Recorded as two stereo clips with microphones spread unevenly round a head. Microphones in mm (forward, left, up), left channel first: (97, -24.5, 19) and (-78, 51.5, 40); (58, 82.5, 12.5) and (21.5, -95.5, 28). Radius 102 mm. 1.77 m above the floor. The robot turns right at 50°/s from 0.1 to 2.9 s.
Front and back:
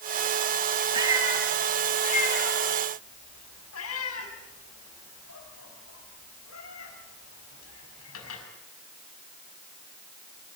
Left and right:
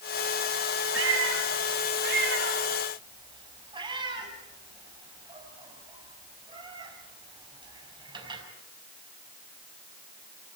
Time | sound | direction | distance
0.9 | a cat meowing | 140° right | 5 m